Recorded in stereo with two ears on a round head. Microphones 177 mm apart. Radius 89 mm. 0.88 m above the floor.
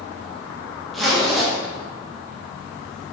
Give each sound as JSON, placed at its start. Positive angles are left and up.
{"t": 0.9, "sound": "a zipper", "side_deg": 0, "distance_m": 0.6}